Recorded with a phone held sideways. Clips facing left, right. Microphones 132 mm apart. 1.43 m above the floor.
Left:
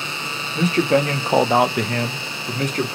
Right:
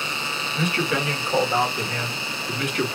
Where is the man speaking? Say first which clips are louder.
Left 8 dB; 35° left (ahead or behind), 0.7 m.